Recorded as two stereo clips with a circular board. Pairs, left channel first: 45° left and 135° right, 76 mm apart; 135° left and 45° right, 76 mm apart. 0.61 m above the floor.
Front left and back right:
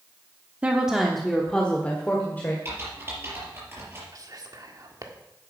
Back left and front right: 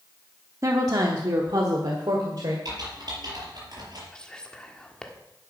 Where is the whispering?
145° right, 1.6 m.